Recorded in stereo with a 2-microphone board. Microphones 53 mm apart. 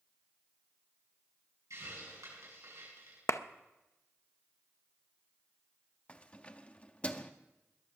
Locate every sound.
1.7 s a hiss: 85° right, 7.5 m
3.3 s a clap: 70° left (ahead or behind), 0.6 m
6.1 s keys jangling: 25° left (ahead or behind), 0.8 m